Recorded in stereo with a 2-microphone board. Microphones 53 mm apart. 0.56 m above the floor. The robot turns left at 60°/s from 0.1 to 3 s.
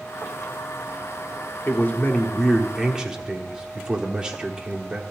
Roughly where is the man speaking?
Ahead left.